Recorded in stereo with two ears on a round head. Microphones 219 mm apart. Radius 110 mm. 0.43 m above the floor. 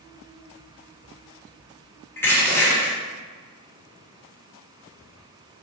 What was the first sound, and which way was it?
Crushing, 10° left (ahead or behind).